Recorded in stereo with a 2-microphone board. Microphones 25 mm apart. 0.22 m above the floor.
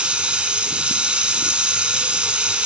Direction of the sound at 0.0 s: 60° right (ahead or behind).